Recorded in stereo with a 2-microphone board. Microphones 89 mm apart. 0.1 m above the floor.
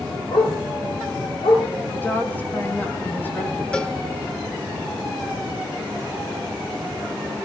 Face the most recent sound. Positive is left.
turn(degrees=10)  # may be behind; listen again after turning